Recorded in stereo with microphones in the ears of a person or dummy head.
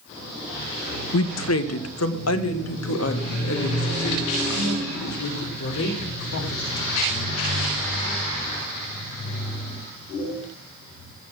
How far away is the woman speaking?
About 0.9 m.